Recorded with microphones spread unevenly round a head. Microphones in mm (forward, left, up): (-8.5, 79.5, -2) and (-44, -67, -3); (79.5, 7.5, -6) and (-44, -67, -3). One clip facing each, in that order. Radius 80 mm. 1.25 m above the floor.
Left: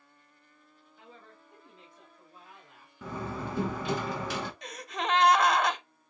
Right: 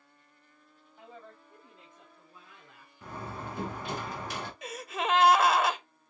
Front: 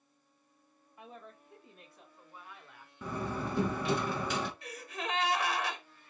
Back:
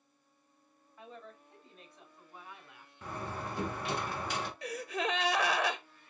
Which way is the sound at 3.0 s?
40° left.